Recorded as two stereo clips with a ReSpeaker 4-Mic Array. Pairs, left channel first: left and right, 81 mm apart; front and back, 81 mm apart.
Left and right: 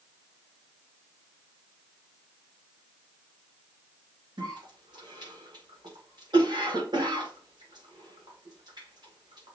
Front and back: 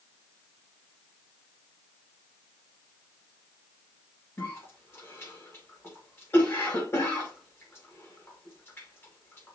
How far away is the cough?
About 1.9 m.